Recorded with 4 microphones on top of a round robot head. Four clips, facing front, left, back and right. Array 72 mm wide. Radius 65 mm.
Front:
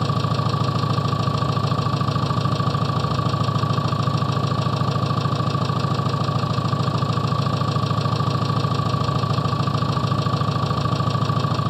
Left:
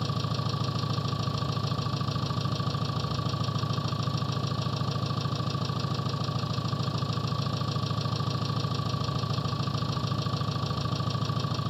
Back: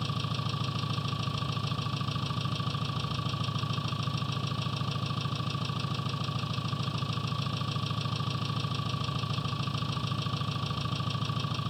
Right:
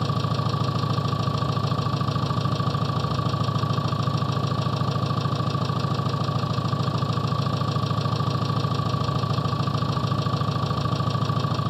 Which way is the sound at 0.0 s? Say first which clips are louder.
Right 6 dB, front 12 dB; 10° right.